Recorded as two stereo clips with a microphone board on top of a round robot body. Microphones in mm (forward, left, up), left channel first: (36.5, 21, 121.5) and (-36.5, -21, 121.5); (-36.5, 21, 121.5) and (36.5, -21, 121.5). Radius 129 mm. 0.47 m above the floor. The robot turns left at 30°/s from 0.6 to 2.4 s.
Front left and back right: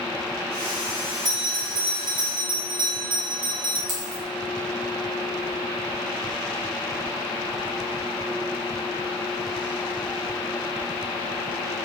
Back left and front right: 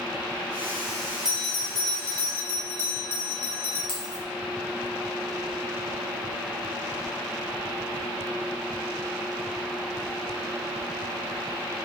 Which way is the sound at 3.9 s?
125° right.